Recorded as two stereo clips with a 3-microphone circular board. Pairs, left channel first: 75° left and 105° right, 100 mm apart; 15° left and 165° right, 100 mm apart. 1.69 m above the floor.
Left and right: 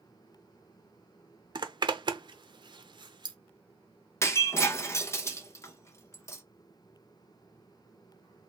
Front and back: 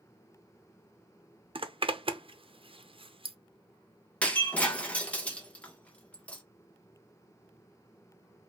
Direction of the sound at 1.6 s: 145° right.